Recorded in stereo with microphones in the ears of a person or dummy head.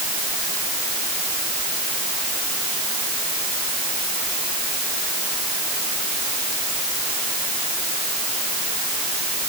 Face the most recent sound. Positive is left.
No sound to turn to.